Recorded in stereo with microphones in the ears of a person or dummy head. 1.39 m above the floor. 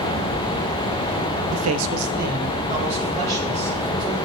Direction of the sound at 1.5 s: 70° right (ahead or behind).